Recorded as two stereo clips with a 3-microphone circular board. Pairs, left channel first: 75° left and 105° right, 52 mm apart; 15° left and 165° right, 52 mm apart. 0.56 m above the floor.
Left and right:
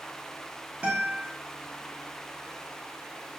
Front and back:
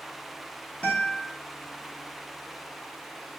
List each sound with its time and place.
0.8 s a guitar: 45° right, 0.8 m